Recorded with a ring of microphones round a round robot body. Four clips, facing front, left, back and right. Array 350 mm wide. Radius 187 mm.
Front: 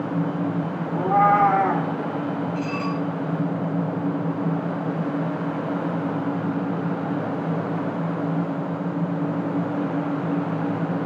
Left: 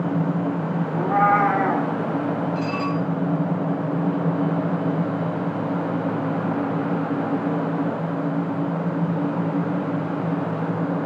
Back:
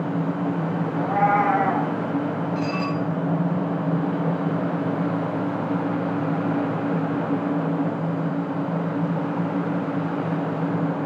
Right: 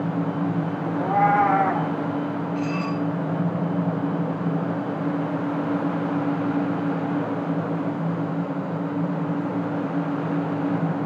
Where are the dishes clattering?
95° left, 8 m.